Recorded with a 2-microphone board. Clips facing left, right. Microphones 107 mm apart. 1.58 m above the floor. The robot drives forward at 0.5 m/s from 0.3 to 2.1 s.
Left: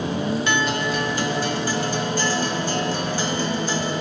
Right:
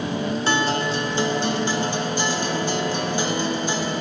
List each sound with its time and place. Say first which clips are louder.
0.5 s a guitar: right 1 dB; 30° right (ahead or behind), 0.7 m; by 3.9 s 20° right (ahead or behind), 1.1 m